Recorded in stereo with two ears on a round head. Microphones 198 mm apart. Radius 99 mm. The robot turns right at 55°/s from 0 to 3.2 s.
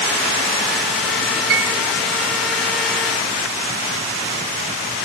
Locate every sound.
1.5 s a piano: 60° right (ahead or behind), 2.5 m